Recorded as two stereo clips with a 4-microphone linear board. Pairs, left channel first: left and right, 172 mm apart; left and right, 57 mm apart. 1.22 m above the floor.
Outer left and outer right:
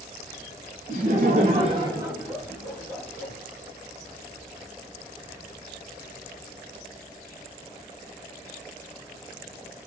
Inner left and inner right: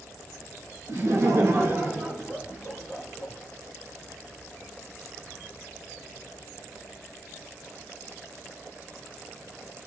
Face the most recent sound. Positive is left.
turn(degrees=10)  # may be behind; listen again after turning